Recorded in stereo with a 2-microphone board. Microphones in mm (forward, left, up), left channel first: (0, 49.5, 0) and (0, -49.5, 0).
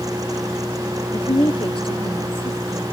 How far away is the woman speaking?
About 2 m.